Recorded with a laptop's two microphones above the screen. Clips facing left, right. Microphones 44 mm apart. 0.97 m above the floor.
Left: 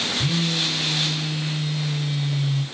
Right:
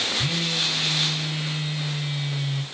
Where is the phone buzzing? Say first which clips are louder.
Left 2 dB; 10° right (ahead or behind), 4 m.